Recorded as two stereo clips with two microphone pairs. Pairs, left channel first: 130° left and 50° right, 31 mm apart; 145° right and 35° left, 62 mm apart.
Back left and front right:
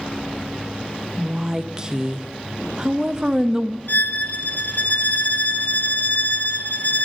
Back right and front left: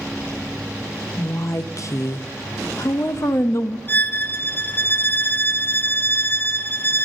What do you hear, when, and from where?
1.2 s a woman speaking: 115° right, 0.5 m
3.9 s a violin: 165° left, 0.6 m